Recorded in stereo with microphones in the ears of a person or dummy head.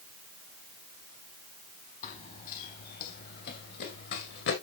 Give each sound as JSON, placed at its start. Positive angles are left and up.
{"t": 2.0, "sound": "running footsteps", "side_deg": 40, "distance_m": 2.5}